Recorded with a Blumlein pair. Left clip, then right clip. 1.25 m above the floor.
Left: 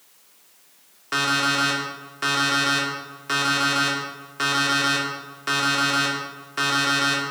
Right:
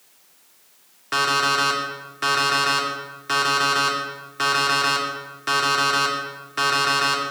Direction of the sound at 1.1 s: 5° right.